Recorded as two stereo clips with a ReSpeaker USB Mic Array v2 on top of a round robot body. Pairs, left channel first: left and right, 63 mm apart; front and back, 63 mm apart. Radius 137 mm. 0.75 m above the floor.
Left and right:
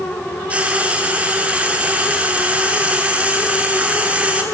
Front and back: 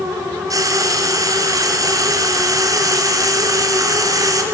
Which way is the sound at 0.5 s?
160° right.